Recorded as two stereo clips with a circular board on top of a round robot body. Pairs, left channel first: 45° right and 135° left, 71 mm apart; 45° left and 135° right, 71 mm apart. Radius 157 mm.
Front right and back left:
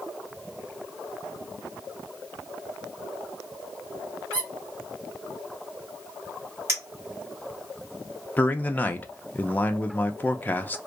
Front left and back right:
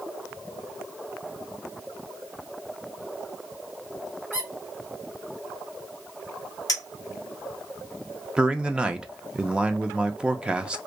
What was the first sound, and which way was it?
A squeak, 165° left.